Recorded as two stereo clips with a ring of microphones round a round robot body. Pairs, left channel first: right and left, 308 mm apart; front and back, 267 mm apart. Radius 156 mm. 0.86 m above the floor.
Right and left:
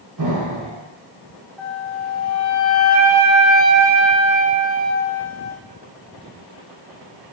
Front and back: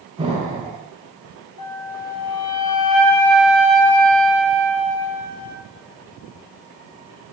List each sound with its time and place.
0.2 s an explosion: 110° left, 4.5 m
1.6 s a flute: 5° right, 2 m